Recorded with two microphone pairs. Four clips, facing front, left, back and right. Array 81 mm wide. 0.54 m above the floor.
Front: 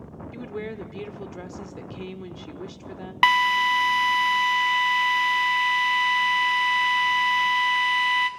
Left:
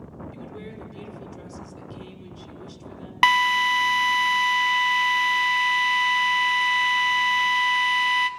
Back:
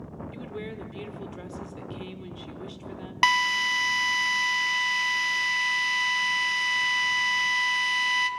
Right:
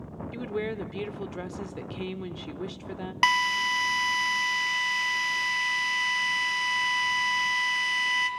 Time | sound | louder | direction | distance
0.3 | a woman speaking | right 7 dB, front 5 dB | 60° right | 1.1 m
3.2 | a drill | left 6 dB, front 4 dB | 50° left | 1.1 m